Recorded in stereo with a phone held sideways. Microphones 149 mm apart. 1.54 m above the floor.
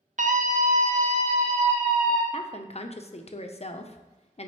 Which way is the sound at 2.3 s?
45° left (ahead or behind).